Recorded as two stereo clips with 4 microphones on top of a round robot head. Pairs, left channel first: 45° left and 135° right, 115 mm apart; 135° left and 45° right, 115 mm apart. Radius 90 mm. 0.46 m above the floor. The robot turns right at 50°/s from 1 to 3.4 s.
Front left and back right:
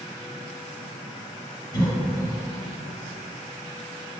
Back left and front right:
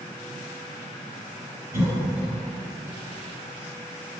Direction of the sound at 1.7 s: 10° left.